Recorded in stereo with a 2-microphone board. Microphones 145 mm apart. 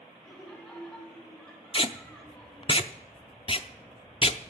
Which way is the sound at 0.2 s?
5° left (ahead or behind).